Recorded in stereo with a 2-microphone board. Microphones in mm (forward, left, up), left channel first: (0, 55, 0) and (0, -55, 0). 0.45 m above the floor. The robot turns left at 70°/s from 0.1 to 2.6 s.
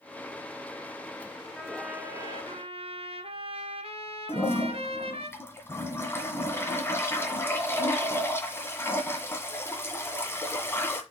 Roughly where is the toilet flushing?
Left.